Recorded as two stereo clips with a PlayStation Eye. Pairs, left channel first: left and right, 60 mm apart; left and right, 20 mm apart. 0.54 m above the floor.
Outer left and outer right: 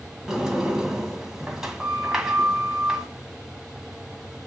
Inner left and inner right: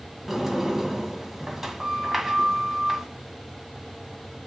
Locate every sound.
0.3 s a sliding door: 10° right (ahead or behind), 1.9 m